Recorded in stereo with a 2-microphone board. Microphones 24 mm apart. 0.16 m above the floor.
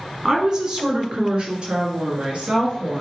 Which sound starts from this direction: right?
A woman speaking, at 0.2 s.